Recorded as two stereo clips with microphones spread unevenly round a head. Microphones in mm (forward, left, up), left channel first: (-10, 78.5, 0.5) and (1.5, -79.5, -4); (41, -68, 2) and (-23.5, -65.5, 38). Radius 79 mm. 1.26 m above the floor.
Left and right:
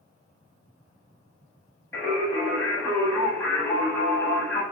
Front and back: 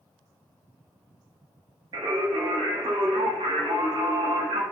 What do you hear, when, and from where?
1.9 s singing: 170° left, 0.8 m